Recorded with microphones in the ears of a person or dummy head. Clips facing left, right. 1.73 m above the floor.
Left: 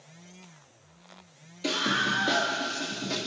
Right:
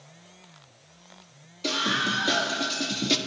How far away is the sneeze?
I don't hear a sneeze.